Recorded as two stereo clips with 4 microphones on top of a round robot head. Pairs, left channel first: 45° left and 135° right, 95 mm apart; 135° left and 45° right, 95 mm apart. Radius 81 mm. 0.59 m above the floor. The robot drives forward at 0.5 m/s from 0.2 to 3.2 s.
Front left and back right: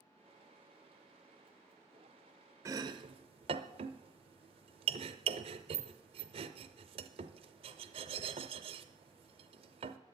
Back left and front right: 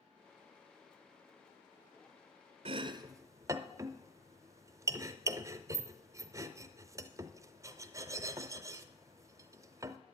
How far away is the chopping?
About 0.6 m.